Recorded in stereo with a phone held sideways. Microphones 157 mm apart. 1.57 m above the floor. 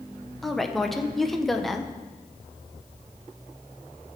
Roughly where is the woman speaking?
Centre.